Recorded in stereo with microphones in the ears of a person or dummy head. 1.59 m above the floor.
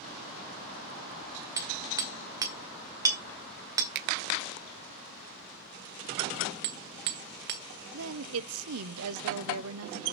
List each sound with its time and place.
1.6 s hammering: 15° right (ahead or behind), 2 m
4.0 s a finger snap: 55° right (ahead or behind), 0.7 m
6.6 s hammering: 40° right (ahead or behind), 1.6 m
7.9 s a woman speaking: 80° right, 0.8 m